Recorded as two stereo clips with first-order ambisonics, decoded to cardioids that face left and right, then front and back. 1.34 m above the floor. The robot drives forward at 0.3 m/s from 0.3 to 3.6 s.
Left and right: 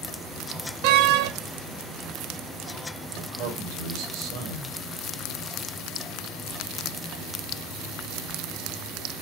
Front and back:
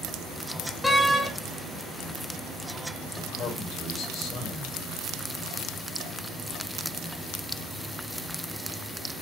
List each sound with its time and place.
0.8 s a door slam: 85° right, 1.3 m; by 1.3 s 90° right, 1.3 m
3.1 s a man speaking: 55° right, 4.5 m